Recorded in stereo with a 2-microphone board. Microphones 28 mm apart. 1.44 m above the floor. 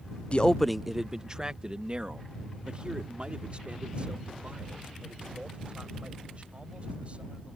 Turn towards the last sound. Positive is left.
turn(degrees=-45)  # may be behind; listen again after turning